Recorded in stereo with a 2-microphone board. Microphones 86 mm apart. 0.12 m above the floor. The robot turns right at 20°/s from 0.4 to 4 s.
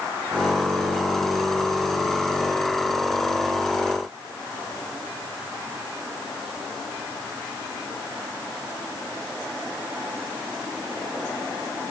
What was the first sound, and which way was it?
Only background noise.